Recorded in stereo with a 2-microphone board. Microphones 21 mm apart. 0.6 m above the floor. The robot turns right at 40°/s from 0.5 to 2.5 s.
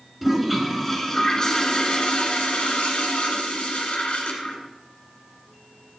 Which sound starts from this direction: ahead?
A toilet flushing, at 0.2 s.